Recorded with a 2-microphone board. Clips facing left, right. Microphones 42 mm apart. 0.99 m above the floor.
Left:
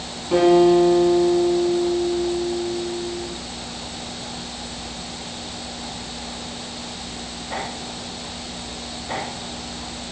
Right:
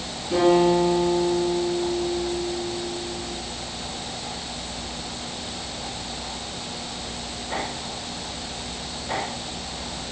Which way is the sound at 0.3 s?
20° left (ahead or behind).